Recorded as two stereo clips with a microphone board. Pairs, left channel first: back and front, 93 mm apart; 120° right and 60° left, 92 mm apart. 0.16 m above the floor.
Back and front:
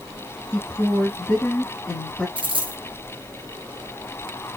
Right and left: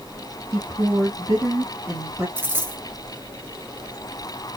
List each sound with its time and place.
0.5 s a woman speaking: 110° left, 3 m
2.4 s a dropped coin: 5° right, 1.1 m